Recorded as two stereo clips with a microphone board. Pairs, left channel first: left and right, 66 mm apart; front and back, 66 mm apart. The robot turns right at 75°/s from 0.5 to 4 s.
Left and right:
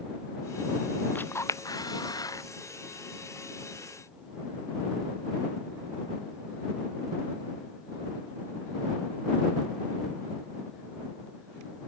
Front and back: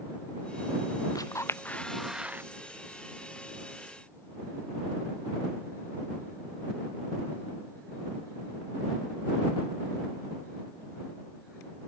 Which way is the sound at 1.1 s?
25° left.